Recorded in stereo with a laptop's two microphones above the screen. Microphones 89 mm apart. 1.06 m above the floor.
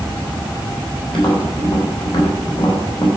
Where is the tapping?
70° left (ahead or behind), 3.5 m.